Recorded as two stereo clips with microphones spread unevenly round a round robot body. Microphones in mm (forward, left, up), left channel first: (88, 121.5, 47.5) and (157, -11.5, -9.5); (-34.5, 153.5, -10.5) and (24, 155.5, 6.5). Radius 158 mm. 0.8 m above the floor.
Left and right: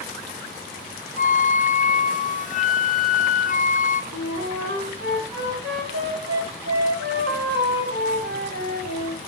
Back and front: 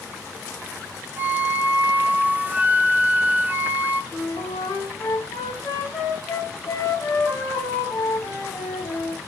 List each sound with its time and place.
1.2 s a flute: 70° left, 1.1 m
4.1 s a flute: 105° right, 3.5 m